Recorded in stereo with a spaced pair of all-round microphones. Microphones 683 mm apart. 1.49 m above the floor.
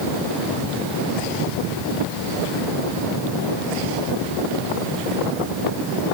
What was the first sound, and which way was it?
Only background noise.